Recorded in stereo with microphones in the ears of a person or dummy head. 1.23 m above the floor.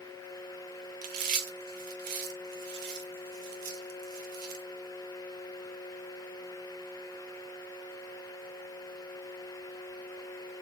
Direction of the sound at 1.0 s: 45° right (ahead or behind).